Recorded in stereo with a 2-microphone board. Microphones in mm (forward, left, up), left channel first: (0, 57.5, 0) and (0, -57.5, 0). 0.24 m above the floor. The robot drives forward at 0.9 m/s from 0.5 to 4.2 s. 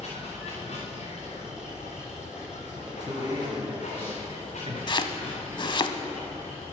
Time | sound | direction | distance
0.0 | running water | 60° left (ahead or behind) | 4.5 m
2.9 | a man speaking | 35° right (ahead or behind) | 2.5 m
4.9 | chopping | 40° left (ahead or behind) | 0.7 m